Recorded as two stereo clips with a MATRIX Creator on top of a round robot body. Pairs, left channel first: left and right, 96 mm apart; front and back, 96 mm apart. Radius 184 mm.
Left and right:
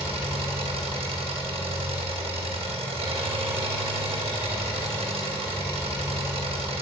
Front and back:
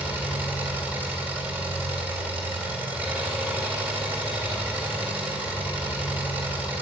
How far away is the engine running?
About 3 m.